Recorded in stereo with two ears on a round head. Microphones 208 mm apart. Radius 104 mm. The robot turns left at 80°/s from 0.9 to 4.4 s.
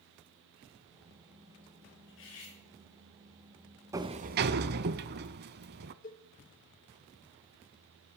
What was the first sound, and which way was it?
Cutlery clinking, 125° left.